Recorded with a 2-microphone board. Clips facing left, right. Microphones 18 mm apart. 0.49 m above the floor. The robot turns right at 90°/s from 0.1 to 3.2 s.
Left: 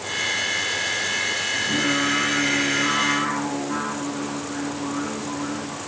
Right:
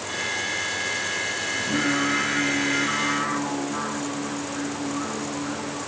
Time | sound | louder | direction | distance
1.5 | singing | even | 25° right | 6 m